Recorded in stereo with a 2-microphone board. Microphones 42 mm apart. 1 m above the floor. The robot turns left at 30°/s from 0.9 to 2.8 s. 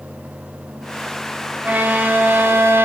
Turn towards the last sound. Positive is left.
turn(degrees=-70)